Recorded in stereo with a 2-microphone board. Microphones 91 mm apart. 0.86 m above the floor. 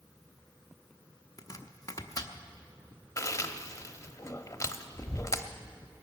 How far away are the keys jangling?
No keys jangling in this recording.